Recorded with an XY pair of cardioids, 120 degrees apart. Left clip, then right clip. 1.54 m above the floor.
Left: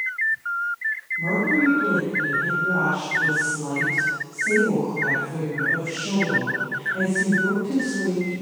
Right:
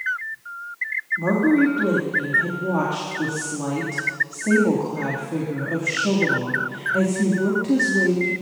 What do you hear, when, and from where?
1.2 s a woman speaking: 65° right, 3 m